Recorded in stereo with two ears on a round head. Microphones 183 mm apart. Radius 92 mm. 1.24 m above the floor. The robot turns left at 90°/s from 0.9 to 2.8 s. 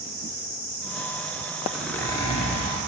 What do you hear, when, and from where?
1.7 s a zipper: 165° right, 1.0 m; by 2.8 s 95° left, 1.0 m